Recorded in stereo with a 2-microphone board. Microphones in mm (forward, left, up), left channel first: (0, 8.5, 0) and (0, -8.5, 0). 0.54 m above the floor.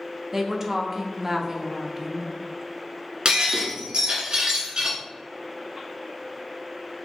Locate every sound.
0.3 s a woman speaking: 25° right (ahead or behind), 0.7 m
3.2 s breaking glass: 55° right (ahead or behind), 1.6 m